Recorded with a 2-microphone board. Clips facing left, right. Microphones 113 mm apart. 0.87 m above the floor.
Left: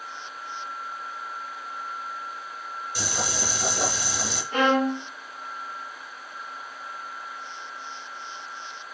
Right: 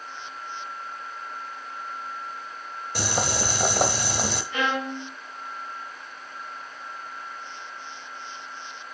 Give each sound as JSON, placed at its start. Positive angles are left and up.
{"t": 3.0, "sound": "boiling", "side_deg": -55, "distance_m": 1.2}
{"t": 4.5, "sound": "a violin", "side_deg": 40, "distance_m": 1.2}